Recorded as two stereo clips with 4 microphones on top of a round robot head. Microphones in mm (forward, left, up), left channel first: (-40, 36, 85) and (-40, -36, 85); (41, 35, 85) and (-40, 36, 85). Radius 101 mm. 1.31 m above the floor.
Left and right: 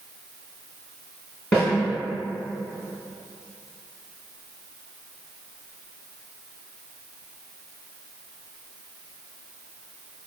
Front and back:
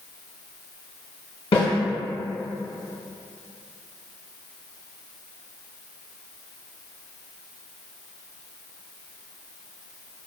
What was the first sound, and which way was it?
A snare drum, 10° left.